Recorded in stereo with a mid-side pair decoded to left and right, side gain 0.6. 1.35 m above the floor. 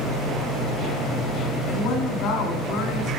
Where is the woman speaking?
65° left, 2.5 m.